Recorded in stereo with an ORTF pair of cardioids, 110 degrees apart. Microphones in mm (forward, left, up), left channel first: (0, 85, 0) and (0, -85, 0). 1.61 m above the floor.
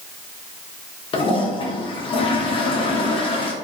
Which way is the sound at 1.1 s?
30° left.